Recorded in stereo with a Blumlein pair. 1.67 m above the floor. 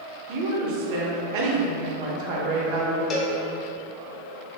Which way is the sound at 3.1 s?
25° left.